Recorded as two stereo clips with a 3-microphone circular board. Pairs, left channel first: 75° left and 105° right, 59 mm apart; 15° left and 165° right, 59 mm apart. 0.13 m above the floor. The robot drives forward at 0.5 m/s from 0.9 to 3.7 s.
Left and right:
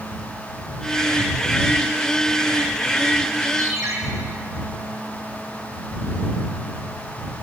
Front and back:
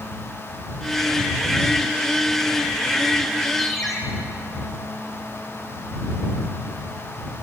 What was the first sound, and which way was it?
A ringtone, 75° right.